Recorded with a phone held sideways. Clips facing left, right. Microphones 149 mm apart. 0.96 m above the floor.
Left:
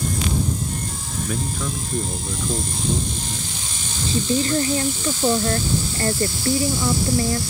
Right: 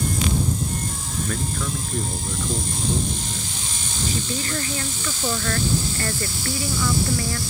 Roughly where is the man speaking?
Centre.